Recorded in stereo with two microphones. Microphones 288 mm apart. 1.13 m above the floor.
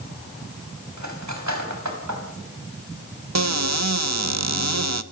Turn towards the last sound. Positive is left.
turn(degrees=-65)  # may be behind; listen again after turning